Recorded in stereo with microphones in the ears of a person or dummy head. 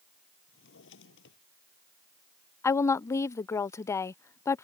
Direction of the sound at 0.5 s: 75° left (ahead or behind).